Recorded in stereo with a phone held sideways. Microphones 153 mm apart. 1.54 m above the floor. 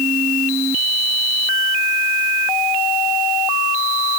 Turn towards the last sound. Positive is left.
No sound to turn to.